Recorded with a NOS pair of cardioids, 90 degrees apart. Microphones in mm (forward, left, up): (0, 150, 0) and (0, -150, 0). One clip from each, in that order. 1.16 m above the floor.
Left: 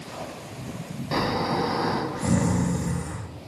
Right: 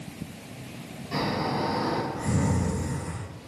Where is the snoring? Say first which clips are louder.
Left 3 dB; 70° left, 1.3 m.